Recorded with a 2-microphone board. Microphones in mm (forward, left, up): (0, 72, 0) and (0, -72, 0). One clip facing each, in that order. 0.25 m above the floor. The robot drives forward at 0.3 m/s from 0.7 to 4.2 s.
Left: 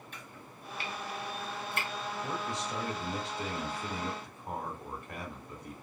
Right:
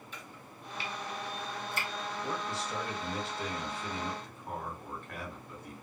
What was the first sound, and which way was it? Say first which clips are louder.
Chopping: even; 50° left (ahead or behind).